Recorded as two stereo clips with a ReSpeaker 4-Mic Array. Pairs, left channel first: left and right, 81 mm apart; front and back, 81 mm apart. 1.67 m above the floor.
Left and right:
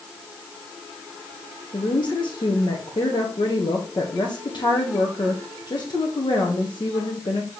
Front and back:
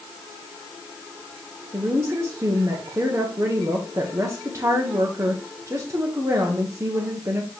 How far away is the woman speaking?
About 1.2 m.